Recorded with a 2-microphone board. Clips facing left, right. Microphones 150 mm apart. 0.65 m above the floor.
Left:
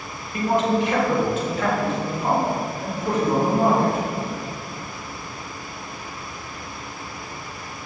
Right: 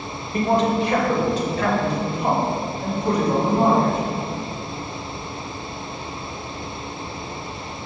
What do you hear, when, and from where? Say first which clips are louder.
0.3 s a man speaking: right 1 dB; 35° right (ahead or behind), 2.0 m